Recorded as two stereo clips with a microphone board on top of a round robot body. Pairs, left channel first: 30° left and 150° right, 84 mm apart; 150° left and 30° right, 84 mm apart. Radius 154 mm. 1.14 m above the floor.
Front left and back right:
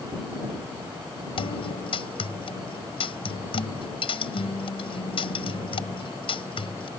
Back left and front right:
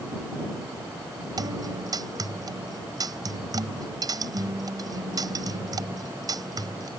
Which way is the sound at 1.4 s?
15° left.